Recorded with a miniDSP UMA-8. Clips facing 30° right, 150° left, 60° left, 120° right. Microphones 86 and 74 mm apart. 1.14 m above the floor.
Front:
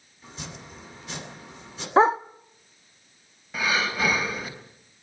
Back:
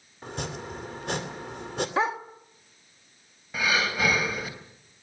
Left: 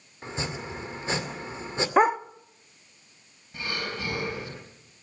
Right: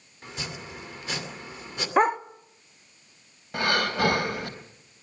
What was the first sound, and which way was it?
Chopping, 125° left.